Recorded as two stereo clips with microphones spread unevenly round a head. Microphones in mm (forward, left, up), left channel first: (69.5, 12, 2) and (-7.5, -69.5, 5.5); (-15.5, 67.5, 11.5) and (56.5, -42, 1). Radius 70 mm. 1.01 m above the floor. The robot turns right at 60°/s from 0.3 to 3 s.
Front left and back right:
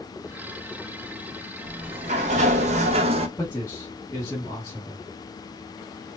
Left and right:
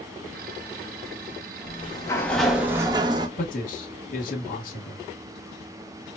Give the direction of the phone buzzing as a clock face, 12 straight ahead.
No phone buzzing in this recording.